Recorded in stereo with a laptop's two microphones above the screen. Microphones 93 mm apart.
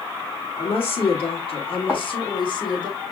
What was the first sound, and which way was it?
A woman speaking, 80° left.